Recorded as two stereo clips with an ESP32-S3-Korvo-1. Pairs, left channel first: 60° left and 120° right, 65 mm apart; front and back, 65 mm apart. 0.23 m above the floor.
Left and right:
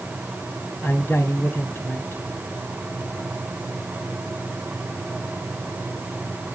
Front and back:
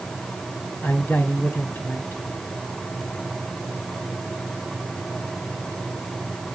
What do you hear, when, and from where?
0.8 s a man speaking: 35° left, 2 m